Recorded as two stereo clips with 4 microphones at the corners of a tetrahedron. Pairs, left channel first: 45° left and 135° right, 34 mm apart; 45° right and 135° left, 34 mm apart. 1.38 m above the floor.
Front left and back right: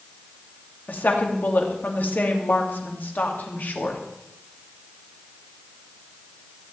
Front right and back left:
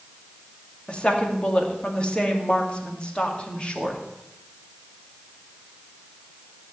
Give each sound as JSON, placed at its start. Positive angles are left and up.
{"t": 0.9, "sound": "a woman speaking", "azimuth_deg": 10, "distance_m": 3.0}